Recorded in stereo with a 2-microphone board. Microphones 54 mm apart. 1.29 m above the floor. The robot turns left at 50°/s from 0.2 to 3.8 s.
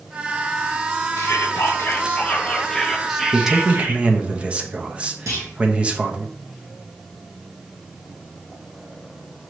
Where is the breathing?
No breathing in this recording.